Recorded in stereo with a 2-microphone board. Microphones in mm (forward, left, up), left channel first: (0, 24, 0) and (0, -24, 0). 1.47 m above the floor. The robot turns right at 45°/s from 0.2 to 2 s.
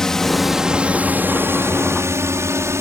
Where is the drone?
10° left (ahead or behind); by 2.8 s 70° right (ahead or behind).